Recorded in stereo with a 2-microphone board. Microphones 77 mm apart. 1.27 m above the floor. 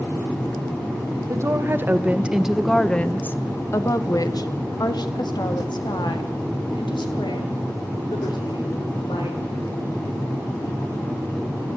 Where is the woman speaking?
40° right (ahead or behind), 1.6 m; by 9.4 s 85° left, 5 m.